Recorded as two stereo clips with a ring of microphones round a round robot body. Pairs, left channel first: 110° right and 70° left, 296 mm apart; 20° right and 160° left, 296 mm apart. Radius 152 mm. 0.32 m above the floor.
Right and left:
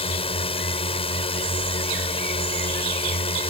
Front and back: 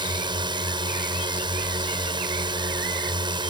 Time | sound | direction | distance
0.0 | a drone | 150° right | ?